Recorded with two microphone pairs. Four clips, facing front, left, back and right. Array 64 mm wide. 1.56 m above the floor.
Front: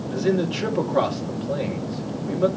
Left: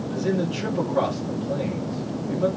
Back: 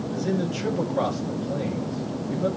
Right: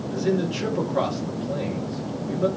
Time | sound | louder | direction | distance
0.1 | a man speaking | right 1 dB, front 5 dB | 5° right | 4 m